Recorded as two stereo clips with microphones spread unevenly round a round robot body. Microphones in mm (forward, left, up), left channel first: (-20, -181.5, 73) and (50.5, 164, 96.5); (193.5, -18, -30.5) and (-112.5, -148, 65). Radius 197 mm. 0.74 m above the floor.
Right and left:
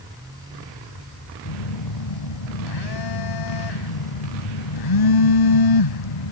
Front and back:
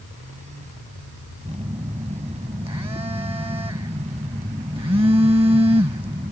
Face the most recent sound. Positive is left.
turn(degrees=-80)